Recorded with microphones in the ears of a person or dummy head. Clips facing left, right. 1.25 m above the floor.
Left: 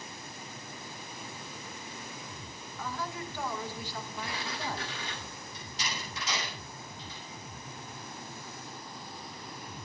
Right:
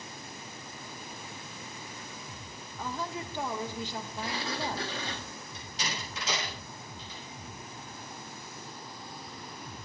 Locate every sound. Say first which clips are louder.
2.8 s a woman speaking: right 1 dB; 20° right (ahead or behind), 0.7 m
4.2 s a sliding door: right 5 dB; 40° right (ahead or behind), 0.8 m
5.5 s a door slam: right 2 dB; 70° right (ahead or behind), 6.5 m